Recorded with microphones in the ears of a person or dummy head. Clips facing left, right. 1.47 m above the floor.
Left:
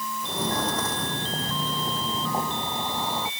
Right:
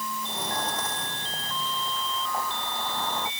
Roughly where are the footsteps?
Left.